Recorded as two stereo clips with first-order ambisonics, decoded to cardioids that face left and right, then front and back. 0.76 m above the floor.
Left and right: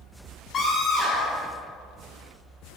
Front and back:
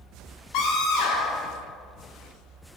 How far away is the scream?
About 3.5 m.